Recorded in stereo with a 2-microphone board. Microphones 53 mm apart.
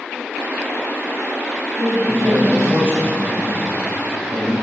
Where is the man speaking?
55° right (ahead or behind), 7 m.